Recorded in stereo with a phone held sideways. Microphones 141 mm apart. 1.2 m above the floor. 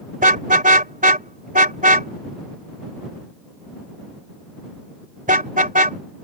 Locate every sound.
0.2 s a car horn: 80° right